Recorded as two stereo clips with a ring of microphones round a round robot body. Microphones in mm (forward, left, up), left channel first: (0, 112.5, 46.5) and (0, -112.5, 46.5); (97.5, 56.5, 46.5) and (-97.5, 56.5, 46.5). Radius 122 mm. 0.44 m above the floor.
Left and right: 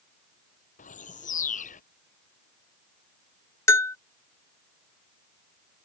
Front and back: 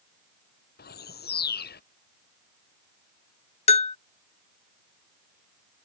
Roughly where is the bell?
Ahead.